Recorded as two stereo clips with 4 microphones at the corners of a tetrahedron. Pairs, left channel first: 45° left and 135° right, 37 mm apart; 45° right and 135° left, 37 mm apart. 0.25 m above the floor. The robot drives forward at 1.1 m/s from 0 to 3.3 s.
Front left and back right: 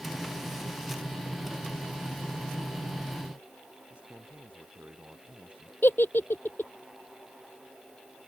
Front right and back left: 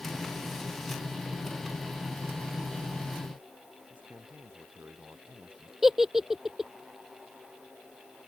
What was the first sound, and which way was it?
A man speaking, 175° left.